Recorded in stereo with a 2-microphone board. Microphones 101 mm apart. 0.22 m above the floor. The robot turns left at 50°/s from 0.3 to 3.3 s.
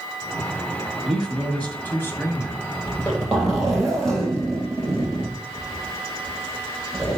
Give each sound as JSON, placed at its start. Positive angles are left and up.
{"t": 1.1, "sound": "a man speaking", "side_deg": 0, "distance_m": 1.7}
{"t": 2.9, "sound": "a zipper", "side_deg": 20, "distance_m": 3.5}